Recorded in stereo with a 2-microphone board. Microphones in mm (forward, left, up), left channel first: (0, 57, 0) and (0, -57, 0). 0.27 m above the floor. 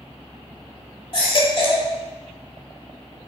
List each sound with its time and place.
1.1 s a baby crying: 45° left (ahead or behind), 0.6 m